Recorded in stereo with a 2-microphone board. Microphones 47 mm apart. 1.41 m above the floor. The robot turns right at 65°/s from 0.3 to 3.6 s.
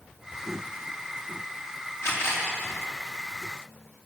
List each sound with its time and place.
2.0 s a camera shutter: 70° left (ahead or behind), 4 m; by 2.5 s 45° left (ahead or behind), 4 m